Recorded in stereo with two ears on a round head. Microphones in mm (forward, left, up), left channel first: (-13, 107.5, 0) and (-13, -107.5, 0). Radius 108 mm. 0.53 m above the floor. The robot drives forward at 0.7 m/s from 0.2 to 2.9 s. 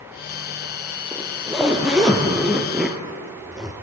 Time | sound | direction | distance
1.1 | a zipper | centre (ahead or behind) | 3.5 m